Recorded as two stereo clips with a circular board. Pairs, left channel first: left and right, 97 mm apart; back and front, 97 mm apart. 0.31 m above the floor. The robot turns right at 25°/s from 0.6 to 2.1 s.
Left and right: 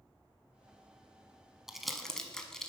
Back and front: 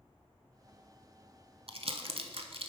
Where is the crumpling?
5° right, 0.7 m; by 2.7 s 5° left, 0.7 m.